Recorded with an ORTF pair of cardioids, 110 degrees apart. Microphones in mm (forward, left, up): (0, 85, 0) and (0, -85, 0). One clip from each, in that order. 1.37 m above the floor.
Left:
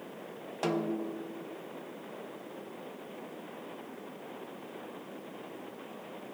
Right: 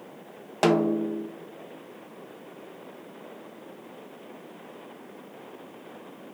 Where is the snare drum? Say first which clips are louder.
Right 10 dB; 50° right, 0.5 m.